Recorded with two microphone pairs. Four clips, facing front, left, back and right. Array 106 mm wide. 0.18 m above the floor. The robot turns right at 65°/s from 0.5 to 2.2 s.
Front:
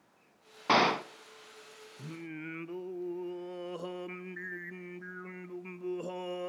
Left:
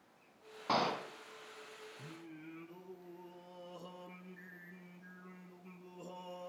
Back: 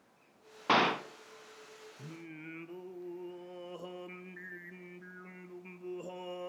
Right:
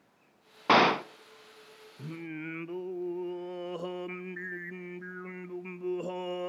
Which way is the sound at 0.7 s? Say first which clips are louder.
Right 11 dB, front 2 dB; 100° right.